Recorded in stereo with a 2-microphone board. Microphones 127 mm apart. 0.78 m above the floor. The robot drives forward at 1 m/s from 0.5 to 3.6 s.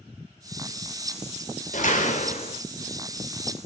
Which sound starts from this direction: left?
A door slam, at 1.7 s.